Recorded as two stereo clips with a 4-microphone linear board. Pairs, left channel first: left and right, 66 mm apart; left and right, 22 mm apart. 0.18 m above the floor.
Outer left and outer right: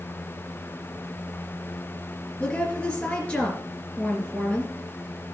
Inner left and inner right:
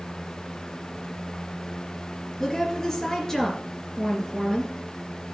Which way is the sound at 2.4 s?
15° left (ahead or behind).